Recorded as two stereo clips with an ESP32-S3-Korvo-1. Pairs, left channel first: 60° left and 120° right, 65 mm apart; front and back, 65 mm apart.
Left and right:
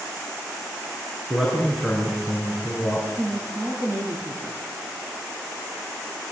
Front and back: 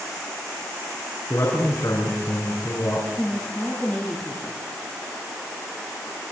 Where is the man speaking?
40° right, 6 m.